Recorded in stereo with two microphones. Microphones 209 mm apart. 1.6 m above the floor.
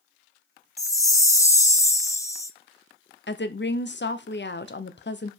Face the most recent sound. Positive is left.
turn(degrees=60)  # may be behind; listen again after turning